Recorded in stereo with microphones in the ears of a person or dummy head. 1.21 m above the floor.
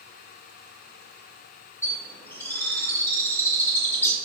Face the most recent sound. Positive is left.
turn(degrees=10)  # may be behind; listen again after turning